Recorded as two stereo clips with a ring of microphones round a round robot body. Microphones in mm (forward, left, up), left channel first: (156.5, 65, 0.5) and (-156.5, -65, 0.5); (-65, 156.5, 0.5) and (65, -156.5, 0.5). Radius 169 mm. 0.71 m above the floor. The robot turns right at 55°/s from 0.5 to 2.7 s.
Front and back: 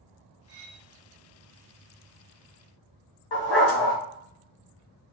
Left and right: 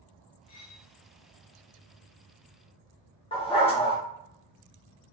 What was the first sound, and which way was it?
Cutlery clinking, 155° left.